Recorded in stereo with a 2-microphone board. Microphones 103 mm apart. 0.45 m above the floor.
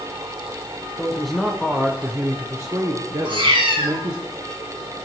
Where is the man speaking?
5° left (ahead or behind), 1.5 m; by 4.2 s 45° right (ahead or behind), 1.7 m.